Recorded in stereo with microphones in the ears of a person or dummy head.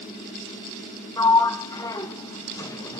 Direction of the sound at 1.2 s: 15° left (ahead or behind).